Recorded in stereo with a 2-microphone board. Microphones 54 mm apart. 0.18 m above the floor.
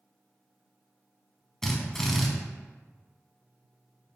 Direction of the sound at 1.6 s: 5° left (ahead or behind).